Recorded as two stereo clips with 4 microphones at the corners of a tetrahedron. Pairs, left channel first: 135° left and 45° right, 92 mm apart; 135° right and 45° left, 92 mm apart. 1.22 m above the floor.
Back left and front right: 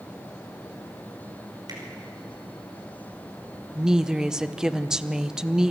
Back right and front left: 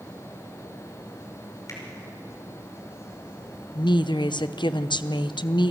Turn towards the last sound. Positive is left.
turn(degrees=-125)